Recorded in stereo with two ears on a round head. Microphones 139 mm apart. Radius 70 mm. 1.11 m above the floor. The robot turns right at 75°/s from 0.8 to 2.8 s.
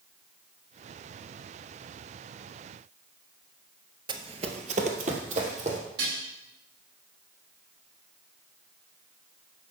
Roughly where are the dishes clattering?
Right.